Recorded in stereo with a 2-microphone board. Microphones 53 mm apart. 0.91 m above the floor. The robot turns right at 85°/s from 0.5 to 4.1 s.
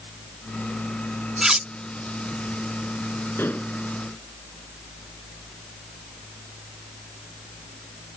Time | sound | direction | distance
1.4 | cutlery clinking | 10° right (ahead or behind) | ?
3.4 | dishes clattering | 135° left | ?